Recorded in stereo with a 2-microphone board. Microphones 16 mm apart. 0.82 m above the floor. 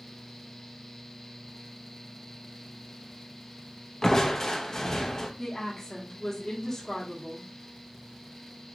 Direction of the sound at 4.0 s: 35° left (ahead or behind).